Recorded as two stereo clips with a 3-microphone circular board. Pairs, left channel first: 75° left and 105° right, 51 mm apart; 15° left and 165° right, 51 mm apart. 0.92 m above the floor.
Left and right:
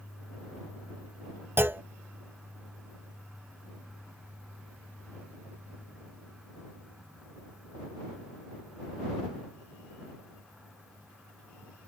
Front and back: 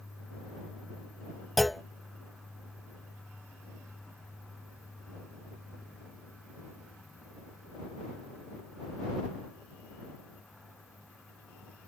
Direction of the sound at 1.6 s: 75° right.